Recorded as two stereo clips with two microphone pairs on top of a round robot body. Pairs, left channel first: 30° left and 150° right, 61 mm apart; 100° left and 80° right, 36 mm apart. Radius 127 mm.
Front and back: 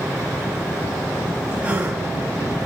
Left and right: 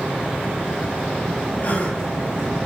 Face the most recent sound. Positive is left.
turn(degrees=140)